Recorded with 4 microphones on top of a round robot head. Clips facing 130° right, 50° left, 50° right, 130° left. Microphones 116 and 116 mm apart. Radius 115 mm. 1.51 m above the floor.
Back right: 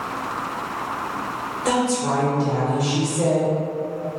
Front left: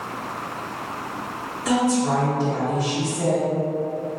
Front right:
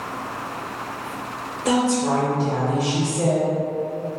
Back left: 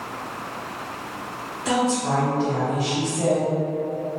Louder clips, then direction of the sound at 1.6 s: Front left 1 dB, front right 2 dB; 100° right.